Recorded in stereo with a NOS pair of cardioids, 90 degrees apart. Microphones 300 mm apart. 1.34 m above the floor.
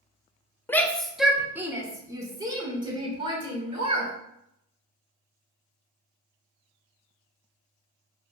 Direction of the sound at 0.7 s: 10° left.